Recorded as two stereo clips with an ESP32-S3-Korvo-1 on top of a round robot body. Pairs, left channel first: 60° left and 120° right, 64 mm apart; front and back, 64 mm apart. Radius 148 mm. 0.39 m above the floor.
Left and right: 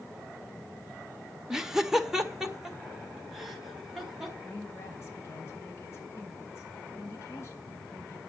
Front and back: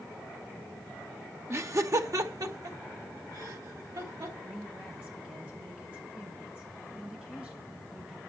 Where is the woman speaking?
110° left, 4 m.